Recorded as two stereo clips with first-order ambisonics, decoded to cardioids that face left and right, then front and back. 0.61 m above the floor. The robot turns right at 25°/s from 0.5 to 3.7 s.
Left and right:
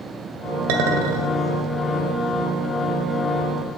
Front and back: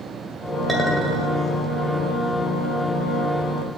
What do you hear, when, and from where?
0.7 s a clink: 90° right, 1.7 m; by 1.4 s 75° right, 1.7 m